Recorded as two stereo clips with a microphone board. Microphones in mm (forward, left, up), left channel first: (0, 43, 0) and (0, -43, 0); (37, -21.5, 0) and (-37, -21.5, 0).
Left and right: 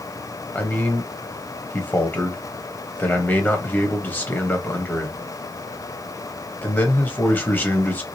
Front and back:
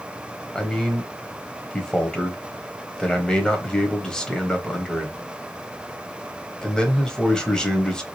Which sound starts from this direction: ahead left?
A man speaking, at 0.6 s.